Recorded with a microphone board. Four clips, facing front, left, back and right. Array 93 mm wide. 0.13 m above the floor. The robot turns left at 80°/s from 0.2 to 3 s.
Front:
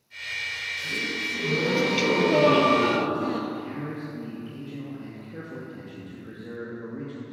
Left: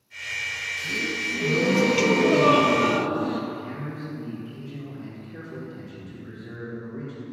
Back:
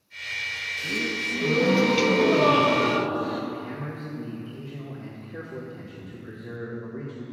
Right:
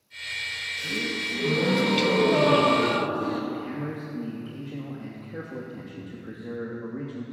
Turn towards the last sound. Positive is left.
turn(degrees=-65)